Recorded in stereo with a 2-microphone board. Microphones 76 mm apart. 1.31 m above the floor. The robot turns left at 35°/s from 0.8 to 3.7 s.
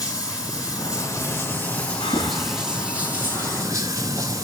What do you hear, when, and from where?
0.0 s running water: 55° left, 4 m; by 4.4 s 45° right, 4 m
2.0 s breathing: 75° left (ahead or behind), 4.5 m; by 3.6 s 20° left (ahead or behind), 4.5 m